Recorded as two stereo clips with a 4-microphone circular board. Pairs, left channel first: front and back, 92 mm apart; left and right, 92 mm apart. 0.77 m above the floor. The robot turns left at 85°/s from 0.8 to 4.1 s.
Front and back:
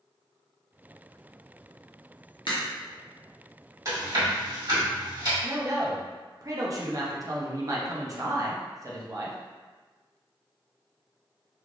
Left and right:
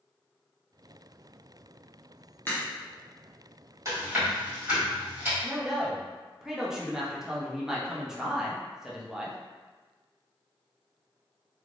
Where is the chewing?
135° right, 1.9 m; by 5.3 s 160° right, 1.9 m.